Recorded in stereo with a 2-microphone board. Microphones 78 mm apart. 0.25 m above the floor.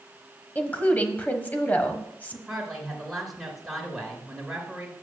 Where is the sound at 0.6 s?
20° left (ahead or behind), 1.1 m.